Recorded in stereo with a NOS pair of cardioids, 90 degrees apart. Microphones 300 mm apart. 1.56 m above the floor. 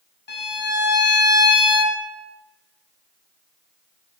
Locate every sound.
0.3 s a violin: 35° left, 1.1 m